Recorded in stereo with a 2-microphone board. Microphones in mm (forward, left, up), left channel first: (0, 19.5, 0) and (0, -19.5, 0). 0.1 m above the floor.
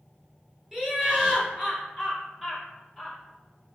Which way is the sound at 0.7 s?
20° right (ahead or behind).